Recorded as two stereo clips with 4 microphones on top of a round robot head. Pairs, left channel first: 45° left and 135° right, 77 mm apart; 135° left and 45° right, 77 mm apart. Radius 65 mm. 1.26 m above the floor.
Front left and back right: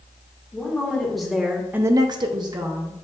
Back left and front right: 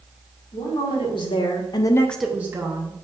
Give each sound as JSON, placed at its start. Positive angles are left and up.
{"t": 0.5, "sound": "a woman speaking", "azimuth_deg": 125, "distance_m": 1.9}